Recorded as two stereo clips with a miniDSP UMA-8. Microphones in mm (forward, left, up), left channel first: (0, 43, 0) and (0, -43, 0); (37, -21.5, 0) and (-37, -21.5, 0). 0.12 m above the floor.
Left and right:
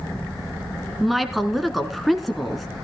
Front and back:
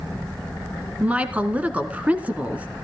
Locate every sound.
1.0 s a woman speaking: straight behind, 1.0 m